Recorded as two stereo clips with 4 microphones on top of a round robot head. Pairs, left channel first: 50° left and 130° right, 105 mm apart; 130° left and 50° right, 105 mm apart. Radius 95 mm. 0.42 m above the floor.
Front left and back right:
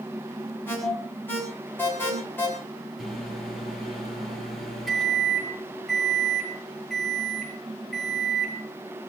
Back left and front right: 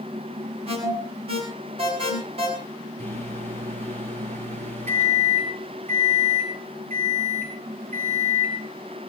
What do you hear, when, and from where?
0.7 s an alarm: 20° right, 7.5 m
3.0 s a microwave: 40° right, 7 m